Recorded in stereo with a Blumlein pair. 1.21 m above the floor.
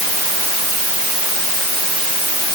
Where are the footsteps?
I don't hear footsteps.